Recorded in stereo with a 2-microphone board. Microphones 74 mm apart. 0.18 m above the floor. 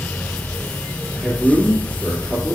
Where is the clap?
I don't hear a clap.